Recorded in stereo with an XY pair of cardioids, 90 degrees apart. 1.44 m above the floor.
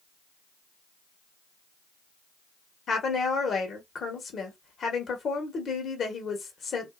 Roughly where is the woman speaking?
Ahead left.